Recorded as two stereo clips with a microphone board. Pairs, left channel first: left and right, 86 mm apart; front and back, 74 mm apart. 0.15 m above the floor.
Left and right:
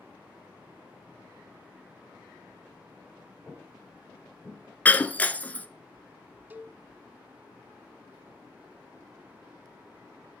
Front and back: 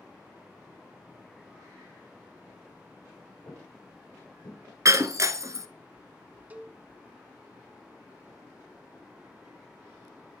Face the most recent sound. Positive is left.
turn(degrees=-135)